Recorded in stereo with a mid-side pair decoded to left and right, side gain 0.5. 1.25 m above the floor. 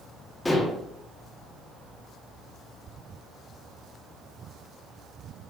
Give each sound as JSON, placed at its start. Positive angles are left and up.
{"t": 0.5, "sound": "dishes clattering", "azimuth_deg": 20, "distance_m": 1.8}